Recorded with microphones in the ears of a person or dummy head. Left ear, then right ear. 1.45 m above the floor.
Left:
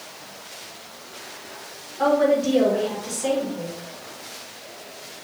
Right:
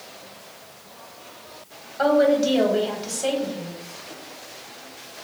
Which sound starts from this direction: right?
A woman speaking, at 2.0 s.